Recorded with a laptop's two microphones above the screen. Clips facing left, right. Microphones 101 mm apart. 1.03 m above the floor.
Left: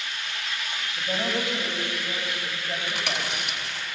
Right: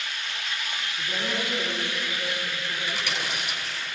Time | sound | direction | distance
1.0 | a woman speaking | 80° left | 7 m
2.9 | chewing | 70° left (ahead or behind) | 3.5 m